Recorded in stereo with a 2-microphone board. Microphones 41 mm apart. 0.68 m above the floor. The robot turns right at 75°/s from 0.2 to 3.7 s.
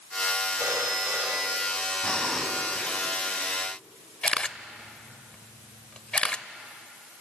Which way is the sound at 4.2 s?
30° left (ahead or behind).